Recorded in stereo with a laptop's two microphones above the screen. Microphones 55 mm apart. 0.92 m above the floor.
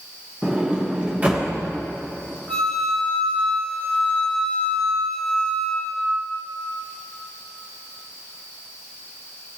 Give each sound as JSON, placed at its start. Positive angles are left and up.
{"t": 0.4, "sound": "a sliding door", "side_deg": -25, "distance_m": 1.2}
{"t": 2.5, "sound": "a flute", "side_deg": 10, "distance_m": 4.0}